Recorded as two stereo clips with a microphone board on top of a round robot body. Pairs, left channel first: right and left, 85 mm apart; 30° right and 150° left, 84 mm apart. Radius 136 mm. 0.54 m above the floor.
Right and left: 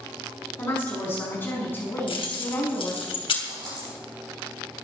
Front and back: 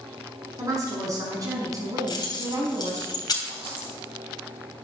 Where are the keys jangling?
70° right, 3 m.